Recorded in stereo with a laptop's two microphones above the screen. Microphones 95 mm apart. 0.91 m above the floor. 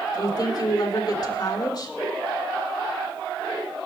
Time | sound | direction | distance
0.1 | a woman speaking | 45° left (ahead or behind) | 3.5 m